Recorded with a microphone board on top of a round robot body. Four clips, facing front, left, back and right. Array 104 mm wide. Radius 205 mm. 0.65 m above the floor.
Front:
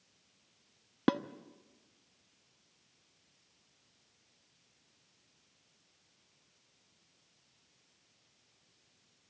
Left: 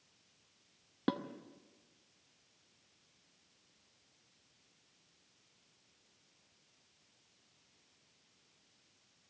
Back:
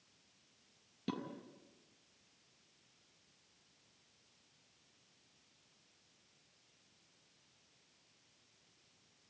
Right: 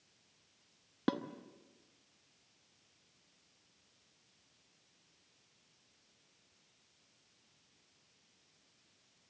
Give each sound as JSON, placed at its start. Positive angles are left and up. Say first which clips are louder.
{"t": 1.1, "sound": "dishes clattering", "louder": "right 1 dB, front 12 dB", "azimuth_deg": -5, "distance_m": 1.1}